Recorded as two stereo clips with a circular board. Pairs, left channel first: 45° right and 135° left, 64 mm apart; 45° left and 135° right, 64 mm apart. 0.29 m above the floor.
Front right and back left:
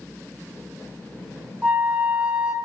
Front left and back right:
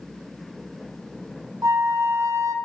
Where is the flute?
155° right, 0.8 m.